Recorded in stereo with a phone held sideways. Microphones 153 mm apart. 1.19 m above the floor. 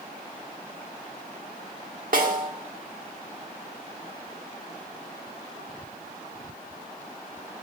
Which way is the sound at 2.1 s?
65° right (ahead or behind).